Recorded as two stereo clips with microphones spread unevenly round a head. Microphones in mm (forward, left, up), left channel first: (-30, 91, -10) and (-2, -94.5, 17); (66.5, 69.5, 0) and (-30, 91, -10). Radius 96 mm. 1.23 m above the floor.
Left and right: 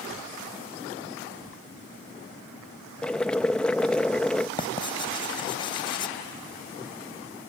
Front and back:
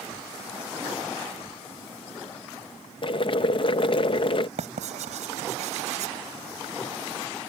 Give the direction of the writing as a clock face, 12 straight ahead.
6 o'clock.